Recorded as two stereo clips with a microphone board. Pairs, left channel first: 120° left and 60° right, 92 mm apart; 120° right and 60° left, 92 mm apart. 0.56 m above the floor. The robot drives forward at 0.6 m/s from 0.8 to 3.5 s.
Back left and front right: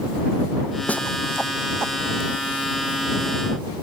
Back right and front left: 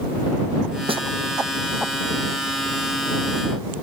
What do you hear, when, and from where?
0.9 s a snare drum: 45° left